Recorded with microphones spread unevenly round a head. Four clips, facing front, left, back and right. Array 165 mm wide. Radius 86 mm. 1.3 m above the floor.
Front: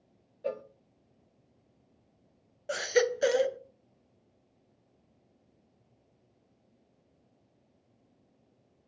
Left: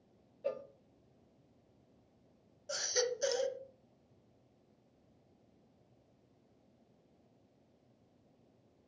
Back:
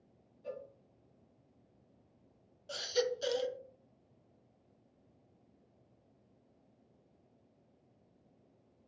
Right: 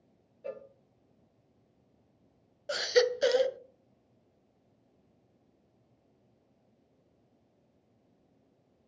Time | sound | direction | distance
0.4 | a cowbell | 10° left | 0.7 m
2.7 | a baby crying | 40° right | 0.6 m